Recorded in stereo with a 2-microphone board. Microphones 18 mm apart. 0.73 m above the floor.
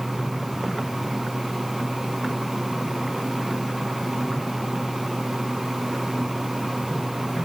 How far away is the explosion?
No explosion in this recording.